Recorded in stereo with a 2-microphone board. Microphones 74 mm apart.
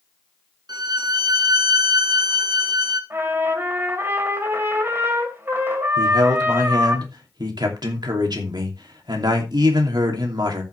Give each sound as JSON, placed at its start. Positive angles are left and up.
{"t": 0.7, "sound": "a violin", "side_deg": -70, "distance_m": 1.0}
{"t": 3.1, "sound": "a trumpet", "side_deg": -30, "distance_m": 2.5}
{"t": 6.0, "sound": "a man speaking", "side_deg": -70, "distance_m": 2.5}